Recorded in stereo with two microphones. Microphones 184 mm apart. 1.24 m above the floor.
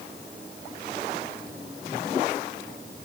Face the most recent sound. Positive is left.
No sound to turn to.